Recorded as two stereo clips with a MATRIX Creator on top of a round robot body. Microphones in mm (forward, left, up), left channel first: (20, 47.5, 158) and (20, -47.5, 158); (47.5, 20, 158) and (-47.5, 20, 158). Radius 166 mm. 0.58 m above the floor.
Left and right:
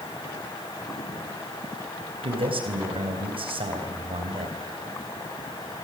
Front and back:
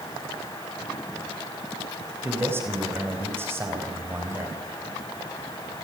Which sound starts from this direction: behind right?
A man speaking, at 2.2 s.